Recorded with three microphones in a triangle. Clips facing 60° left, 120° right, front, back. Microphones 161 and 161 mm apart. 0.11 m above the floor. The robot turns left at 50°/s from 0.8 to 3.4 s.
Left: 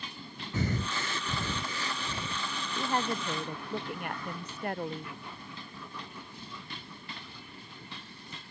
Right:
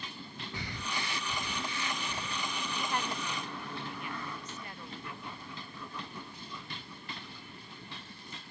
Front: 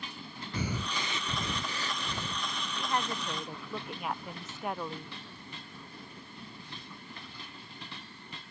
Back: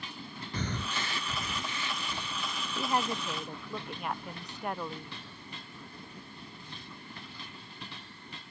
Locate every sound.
0.5 s breathing: 80° left; by 2.4 s 5° right
2.7 s a woman speaking: 120° left; by 5.2 s 90° left